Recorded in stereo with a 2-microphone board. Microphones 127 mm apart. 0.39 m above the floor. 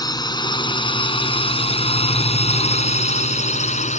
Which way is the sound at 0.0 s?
30° left (ahead or behind).